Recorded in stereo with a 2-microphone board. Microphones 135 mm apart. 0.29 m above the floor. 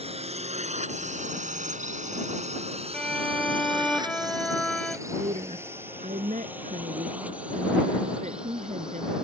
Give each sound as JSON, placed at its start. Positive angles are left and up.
{"t": 0.0, "sound": "a drone", "side_deg": -50}
{"t": 2.9, "sound": "a violin", "side_deg": 5}
{"t": 5.1, "sound": "a woman speaking", "side_deg": -60}